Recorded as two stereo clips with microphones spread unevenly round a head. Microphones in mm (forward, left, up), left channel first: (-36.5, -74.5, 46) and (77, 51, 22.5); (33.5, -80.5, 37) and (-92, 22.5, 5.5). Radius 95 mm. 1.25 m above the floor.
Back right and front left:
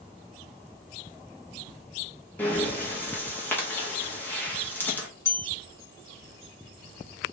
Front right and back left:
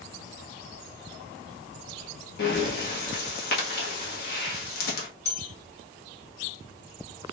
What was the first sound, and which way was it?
Breathing, 55° right.